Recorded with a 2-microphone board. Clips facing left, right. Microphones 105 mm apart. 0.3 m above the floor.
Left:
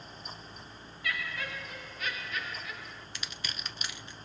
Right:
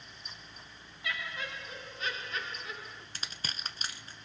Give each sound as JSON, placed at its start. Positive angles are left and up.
{"t": 1.0, "sound": "laughter", "side_deg": -20, "distance_m": 2.0}
{"t": 3.1, "sound": "crushing", "side_deg": -40, "distance_m": 0.9}